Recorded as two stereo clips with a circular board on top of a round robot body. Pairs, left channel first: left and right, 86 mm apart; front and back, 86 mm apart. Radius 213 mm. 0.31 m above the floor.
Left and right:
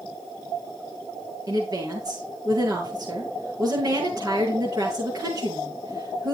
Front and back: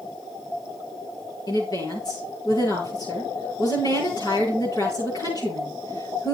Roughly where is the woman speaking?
Ahead right.